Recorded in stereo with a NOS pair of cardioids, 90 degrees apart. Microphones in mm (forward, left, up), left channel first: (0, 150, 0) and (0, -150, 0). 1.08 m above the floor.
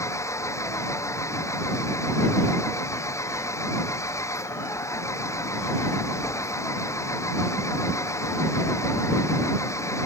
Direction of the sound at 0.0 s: 10° left.